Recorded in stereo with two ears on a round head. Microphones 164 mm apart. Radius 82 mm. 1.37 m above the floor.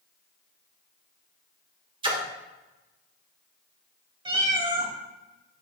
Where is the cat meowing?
30° right (ahead or behind), 2.5 m.